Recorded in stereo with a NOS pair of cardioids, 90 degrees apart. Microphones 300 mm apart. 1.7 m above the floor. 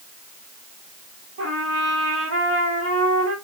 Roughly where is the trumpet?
Ahead right.